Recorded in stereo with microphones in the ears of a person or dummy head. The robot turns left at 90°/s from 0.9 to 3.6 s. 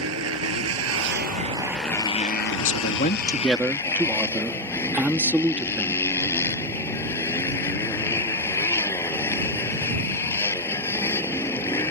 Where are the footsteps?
I don't hear footsteps.